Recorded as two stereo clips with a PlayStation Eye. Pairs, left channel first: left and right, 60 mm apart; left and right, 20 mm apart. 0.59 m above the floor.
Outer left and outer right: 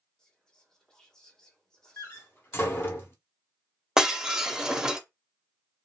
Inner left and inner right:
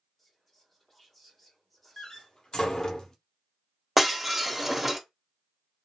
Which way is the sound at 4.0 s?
10° right (ahead or behind).